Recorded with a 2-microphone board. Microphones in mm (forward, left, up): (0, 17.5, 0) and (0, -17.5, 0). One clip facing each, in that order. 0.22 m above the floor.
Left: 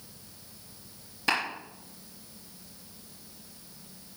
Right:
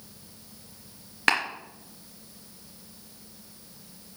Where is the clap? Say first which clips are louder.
Right 4 dB; 55° right (ahead or behind), 3.5 m.